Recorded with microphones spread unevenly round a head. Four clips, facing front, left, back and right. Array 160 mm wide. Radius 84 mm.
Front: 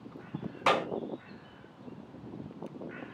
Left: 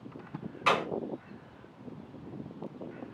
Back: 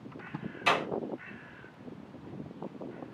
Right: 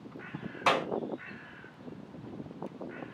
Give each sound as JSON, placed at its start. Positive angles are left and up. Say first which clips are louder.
{"t": 0.7, "sound": "a clap", "louder": "even, front 2 dB", "azimuth_deg": -45, "distance_m": 1.8}